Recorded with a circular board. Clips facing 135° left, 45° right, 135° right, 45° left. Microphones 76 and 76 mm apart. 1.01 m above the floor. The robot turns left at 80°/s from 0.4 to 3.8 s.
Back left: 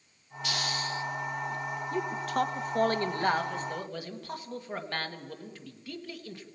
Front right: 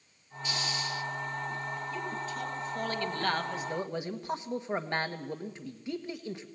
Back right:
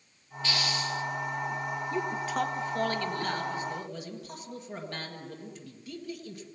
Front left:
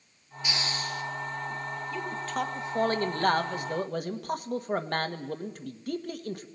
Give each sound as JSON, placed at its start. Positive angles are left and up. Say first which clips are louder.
{"t": 0.4, "sound": "a hiss", "louder": "back left 2 dB, back right 2 dB", "azimuth_deg": 120, "distance_m": 1.2}
{"t": 1.9, "sound": "a man speaking", "louder": "back left 6 dB, back right 2 dB", "azimuth_deg": 175, "distance_m": 1.6}